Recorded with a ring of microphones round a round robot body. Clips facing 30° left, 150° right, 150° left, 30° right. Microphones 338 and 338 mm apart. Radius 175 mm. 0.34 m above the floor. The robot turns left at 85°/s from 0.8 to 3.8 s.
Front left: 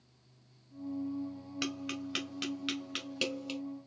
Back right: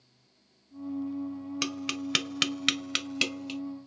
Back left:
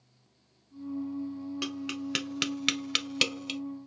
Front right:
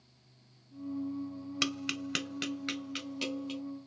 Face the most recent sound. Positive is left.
turn(degrees=95)